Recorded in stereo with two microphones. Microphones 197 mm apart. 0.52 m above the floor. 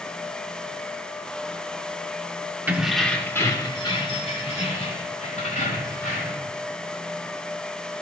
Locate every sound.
2.7 s keys jangling: 10° right (ahead or behind), 0.8 m; by 6.5 s 40° left (ahead or behind), 2.5 m